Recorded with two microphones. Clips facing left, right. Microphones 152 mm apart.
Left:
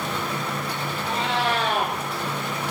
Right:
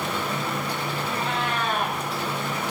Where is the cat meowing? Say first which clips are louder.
Left 5 dB; 85° left, 5 m.